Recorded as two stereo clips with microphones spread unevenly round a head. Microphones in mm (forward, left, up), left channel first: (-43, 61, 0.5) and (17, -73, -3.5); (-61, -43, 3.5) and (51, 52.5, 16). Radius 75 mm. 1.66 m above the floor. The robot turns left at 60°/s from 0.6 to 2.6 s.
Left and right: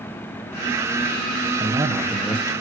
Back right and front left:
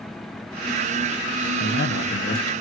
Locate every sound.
1.6 s a man speaking: 120° right, 1.6 m; by 2.5 s 175° right, 1.6 m